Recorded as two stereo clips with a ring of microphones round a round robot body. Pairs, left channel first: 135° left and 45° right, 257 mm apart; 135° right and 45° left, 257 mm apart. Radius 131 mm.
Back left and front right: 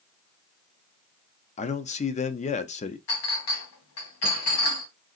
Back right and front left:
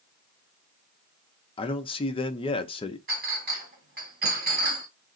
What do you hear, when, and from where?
1.6 s a man speaking: 170° left, 0.5 m
3.1 s a clink: 100° left, 2 m